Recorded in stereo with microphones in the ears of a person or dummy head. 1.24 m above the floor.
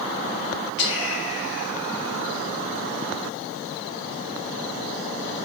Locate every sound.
0.8 s whispering: 50° left (ahead or behind), 0.9 m